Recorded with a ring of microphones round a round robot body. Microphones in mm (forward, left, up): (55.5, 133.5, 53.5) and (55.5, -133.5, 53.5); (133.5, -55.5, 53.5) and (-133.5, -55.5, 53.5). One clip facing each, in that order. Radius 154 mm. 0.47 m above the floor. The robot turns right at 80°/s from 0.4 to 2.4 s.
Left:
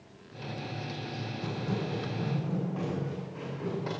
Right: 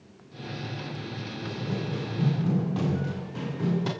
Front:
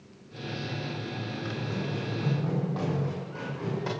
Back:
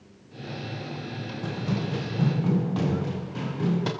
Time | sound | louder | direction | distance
1.4 | running footsteps | right 1 dB, back 6 dB | 150° left | 7 m